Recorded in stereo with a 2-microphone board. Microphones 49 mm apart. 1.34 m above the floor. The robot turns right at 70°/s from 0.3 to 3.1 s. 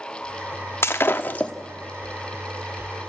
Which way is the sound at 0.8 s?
100° left.